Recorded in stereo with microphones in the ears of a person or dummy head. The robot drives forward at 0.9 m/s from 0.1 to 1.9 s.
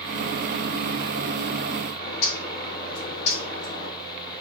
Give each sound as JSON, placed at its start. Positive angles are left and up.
{"t": 2.0, "sound": "a bird", "side_deg": 35, "distance_m": 3.0}